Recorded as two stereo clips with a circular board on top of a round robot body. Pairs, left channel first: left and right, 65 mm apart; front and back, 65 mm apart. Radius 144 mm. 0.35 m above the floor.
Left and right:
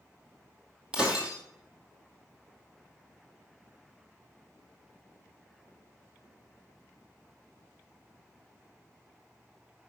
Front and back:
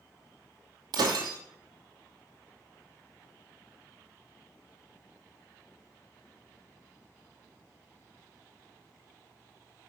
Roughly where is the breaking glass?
Behind.